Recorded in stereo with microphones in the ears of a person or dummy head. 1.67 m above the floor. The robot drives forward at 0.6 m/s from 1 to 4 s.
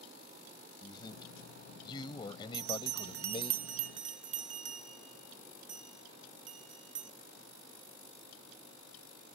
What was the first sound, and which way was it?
A man speaking, 30° left (ahead or behind).